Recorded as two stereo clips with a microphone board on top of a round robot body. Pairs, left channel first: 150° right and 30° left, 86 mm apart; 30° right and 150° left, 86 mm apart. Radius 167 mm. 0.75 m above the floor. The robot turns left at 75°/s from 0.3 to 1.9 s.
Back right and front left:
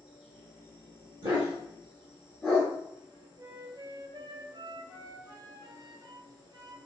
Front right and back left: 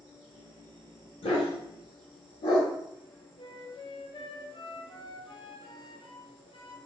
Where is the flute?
15° right, 0.9 m.